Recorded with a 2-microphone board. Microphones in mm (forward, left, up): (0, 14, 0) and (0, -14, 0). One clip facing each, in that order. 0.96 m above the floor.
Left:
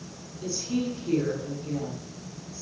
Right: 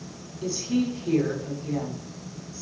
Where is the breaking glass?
No breaking glass in this recording.